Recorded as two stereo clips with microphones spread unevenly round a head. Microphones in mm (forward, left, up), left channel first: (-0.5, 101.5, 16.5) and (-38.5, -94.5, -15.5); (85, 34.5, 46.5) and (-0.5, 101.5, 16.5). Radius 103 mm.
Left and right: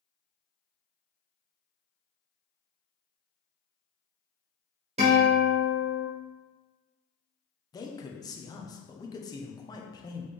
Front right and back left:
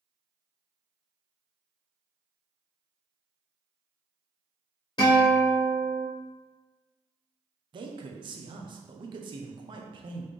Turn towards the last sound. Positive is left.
turn(degrees=155)